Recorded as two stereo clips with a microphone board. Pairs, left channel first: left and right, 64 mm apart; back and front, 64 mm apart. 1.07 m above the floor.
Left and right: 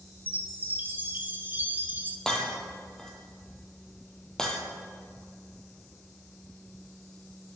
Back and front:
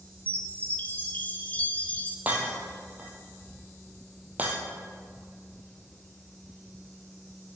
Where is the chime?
130° right, 0.6 m.